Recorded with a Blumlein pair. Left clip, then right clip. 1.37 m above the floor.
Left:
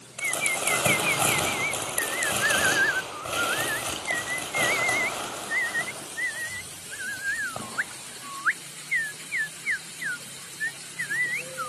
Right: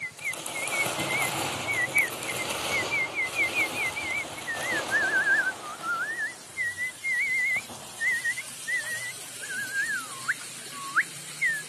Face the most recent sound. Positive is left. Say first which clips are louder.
# left 9 dB
turn(degrees=45)